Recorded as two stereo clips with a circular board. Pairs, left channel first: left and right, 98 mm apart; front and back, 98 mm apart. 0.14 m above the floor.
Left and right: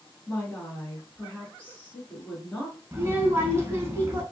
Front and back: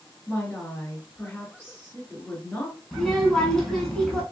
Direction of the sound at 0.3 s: 40° left.